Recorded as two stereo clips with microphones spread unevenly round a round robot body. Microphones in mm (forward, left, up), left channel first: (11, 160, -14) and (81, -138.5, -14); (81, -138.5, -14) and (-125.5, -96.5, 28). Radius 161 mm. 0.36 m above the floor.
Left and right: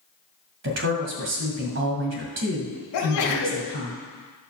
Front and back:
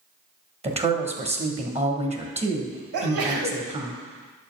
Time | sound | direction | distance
0.6 | a woman speaking | 130° right | 2 m
2.9 | a sneeze | 150° left | 2.5 m